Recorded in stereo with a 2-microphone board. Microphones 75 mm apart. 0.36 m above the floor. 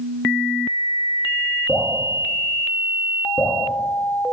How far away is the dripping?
About 8 m.